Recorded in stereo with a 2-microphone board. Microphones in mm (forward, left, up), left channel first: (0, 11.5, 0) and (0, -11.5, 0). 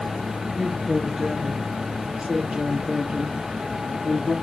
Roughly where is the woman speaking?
Right.